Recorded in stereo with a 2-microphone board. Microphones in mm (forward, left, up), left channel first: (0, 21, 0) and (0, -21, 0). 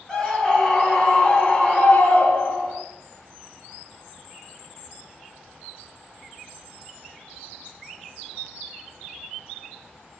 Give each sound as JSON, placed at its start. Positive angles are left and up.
{"t": 0.1, "sound": "a scream", "side_deg": 10, "distance_m": 3.0}